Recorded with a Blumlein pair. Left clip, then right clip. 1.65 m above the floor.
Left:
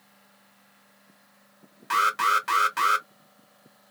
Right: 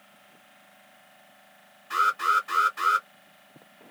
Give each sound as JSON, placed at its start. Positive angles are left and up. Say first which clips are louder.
{"t": 1.9, "sound": "an alarm", "louder": "left 1 dB", "azimuth_deg": 50, "distance_m": 1.1}